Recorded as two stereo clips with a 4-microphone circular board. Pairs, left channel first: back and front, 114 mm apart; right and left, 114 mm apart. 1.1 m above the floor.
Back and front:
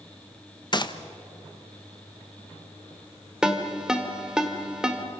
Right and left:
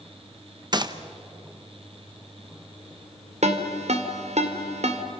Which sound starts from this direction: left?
A ringtone, at 3.4 s.